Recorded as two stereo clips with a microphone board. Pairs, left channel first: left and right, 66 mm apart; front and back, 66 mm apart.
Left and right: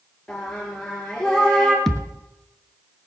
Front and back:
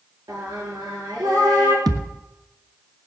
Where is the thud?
170° left, 1.3 m.